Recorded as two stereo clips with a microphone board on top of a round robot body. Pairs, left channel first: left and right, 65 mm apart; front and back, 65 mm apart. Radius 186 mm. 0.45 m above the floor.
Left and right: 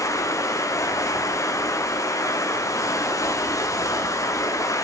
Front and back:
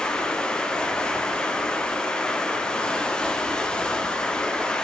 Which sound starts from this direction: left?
Running water, at 0.0 s.